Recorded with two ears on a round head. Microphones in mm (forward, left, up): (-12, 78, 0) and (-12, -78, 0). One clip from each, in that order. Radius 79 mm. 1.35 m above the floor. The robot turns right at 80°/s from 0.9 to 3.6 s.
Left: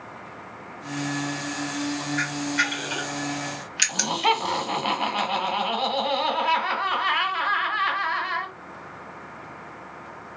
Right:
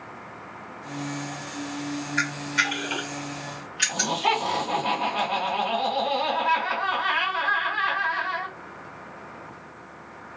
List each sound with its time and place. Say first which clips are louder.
2.2 s a camera shutter: right 1 dB; 60° right (ahead or behind), 0.9 m; by 4.3 s 45° left (ahead or behind), 0.9 m
3.9 s laughter: left 1 dB; 65° left (ahead or behind), 1.4 m